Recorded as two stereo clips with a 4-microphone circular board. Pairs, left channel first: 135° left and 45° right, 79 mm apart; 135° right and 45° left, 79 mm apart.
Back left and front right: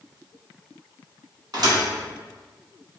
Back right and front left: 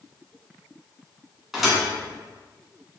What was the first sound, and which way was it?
A thud, 40° right.